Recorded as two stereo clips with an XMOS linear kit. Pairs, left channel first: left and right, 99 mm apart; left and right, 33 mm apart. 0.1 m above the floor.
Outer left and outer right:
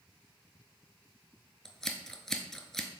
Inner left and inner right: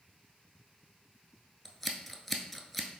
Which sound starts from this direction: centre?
Scissors, at 1.6 s.